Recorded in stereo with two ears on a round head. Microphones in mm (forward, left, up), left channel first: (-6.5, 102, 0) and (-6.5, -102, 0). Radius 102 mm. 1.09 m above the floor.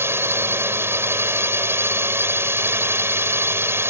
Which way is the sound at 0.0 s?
10° right (ahead or behind).